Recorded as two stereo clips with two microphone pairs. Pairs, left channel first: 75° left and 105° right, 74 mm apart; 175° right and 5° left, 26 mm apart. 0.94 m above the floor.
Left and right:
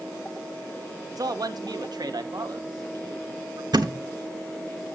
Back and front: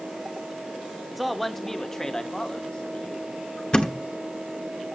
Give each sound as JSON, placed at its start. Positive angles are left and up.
{"t": 1.1, "sound": "a man speaking", "azimuth_deg": -80, "distance_m": 1.0}
{"t": 3.7, "sound": "a thud", "azimuth_deg": -125, "distance_m": 1.1}